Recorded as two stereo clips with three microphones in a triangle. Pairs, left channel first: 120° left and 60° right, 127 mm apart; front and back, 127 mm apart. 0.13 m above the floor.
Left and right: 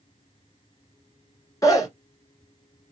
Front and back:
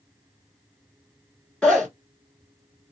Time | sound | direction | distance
1.6 | a zipper | 75° left | 1.4 m